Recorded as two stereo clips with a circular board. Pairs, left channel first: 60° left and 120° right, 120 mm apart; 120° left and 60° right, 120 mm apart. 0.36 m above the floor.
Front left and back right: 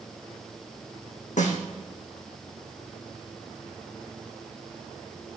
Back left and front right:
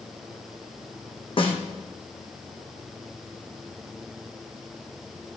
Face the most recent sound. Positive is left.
turn(degrees=75)